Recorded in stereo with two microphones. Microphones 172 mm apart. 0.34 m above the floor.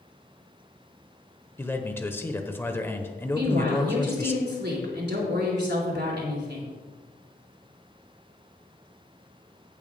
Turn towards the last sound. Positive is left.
turn(degrees=-75)  # may be behind; listen again after turning